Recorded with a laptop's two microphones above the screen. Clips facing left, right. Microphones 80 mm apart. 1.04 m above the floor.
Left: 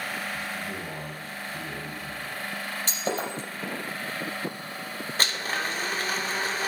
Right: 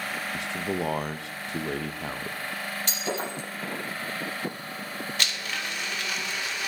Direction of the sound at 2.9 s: 35° left (ahead or behind).